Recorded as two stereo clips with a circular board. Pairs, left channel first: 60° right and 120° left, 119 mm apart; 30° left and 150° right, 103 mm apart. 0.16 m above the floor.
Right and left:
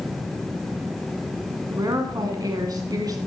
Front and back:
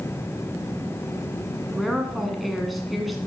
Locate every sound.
1.7 s a woman speaking: 120° left, 1.2 m